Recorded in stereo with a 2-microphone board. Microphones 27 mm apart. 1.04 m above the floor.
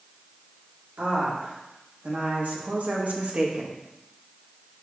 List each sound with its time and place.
1.0 s a woman speaking: 80° right, 2.5 m; by 3.8 s 45° right (ahead or behind), 1.0 m